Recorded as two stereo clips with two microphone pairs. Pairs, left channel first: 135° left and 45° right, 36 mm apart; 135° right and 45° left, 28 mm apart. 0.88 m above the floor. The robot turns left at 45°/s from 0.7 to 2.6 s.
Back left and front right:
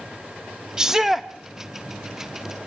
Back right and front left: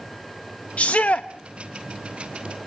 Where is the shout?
115° right, 0.6 m; by 1.3 s 135° right, 0.6 m.